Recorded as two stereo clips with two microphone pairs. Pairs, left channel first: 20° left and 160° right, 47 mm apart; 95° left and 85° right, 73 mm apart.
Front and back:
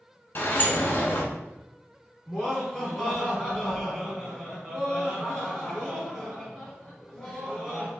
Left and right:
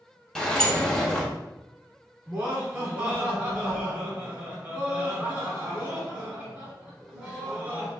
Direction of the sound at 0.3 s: 20° left.